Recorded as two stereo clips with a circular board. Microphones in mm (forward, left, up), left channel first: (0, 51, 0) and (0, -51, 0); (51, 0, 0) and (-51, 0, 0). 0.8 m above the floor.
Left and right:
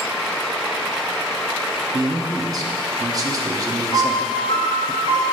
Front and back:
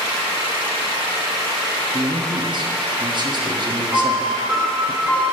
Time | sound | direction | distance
1.9 | a man speaking | 140° right | 1.0 m
3.9 | a piano | 105° left | 2 m